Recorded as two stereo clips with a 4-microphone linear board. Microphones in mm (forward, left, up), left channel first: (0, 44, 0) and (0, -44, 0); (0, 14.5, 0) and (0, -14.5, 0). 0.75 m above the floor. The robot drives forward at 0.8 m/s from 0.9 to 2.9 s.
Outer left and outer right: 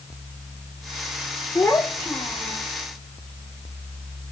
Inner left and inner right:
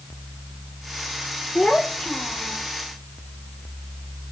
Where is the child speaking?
10° left (ahead or behind), 1.2 m; by 2.7 s 5° left (ahead or behind), 2 m.